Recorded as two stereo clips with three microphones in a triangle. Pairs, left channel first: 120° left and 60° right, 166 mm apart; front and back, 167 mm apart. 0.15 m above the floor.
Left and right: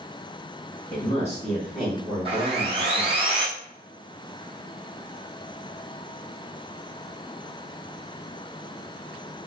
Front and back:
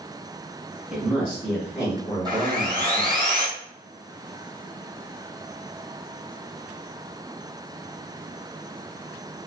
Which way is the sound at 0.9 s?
90° left.